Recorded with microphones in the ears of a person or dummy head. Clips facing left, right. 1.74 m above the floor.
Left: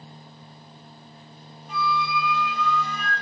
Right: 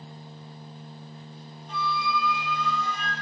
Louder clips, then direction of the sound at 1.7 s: Left 3 dB; 10° left (ahead or behind).